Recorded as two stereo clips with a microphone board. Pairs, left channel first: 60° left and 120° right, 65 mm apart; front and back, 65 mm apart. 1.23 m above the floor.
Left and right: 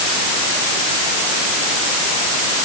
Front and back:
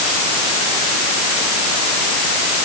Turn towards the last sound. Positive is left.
No sound to turn to.